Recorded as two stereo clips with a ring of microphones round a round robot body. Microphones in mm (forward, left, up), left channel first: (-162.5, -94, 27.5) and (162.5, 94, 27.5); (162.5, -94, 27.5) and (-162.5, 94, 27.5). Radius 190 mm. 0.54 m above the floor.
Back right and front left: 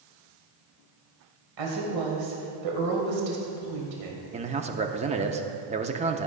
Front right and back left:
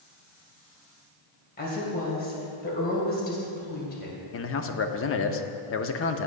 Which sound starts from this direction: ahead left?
A woman speaking, at 1.6 s.